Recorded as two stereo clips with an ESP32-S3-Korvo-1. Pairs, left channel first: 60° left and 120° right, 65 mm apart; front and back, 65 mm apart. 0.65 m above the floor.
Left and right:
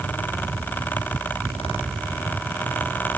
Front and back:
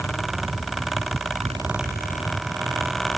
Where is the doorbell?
No doorbell in this recording.